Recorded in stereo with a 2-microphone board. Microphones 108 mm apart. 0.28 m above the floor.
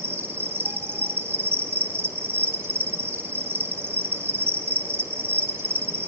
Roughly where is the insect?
Right.